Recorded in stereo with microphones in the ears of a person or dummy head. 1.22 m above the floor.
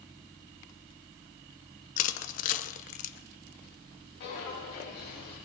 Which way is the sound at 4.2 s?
55° left (ahead or behind).